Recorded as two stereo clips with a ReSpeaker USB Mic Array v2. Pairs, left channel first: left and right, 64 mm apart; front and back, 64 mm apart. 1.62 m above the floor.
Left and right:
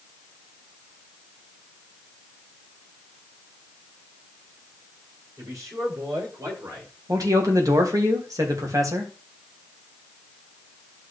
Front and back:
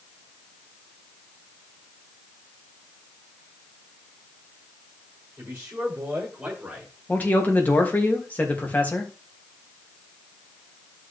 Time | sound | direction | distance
5.4 | a man speaking | 125° right | 7 m
7.1 | a man speaking | 65° right | 2.5 m